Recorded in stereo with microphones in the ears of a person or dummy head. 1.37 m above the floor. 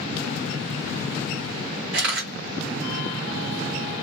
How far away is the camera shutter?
About 1.4 m.